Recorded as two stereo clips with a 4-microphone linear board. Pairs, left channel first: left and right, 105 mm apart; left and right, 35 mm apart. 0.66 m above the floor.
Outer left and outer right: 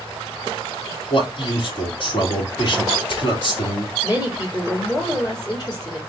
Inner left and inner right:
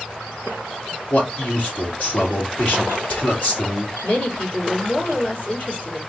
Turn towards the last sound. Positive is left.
turn(degrees=40)  # may be behind; listen again after turning